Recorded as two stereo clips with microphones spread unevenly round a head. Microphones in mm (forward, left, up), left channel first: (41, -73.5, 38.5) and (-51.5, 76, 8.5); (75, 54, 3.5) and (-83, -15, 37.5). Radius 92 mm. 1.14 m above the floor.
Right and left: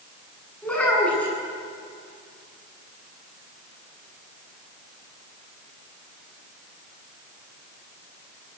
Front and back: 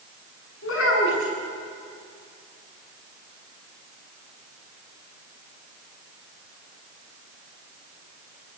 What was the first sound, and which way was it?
A child speaking, 25° left.